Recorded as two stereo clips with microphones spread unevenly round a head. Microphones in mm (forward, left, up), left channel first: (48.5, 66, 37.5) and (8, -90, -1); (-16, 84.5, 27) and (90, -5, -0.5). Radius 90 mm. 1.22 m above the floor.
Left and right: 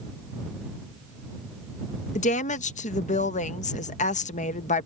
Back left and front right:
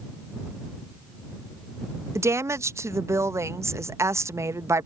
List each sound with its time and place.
2.1 s a woman speaking: 30° left